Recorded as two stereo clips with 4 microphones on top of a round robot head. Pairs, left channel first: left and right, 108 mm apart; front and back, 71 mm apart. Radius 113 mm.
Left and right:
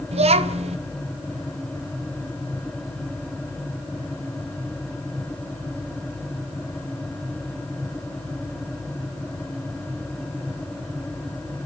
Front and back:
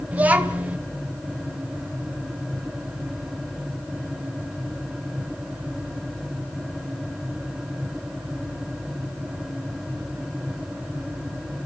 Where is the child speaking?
110° right, 1.5 m.